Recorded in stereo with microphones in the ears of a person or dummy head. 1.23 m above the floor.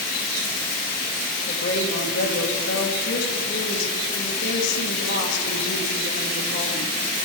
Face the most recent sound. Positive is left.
turn(degrees=65)  # may be behind; listen again after turning